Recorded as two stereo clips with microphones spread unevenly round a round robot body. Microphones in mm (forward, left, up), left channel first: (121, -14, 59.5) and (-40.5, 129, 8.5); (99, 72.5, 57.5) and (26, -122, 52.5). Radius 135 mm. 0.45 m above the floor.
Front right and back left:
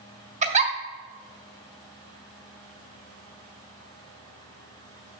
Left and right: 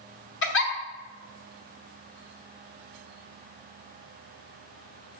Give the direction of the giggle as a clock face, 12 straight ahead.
9 o'clock.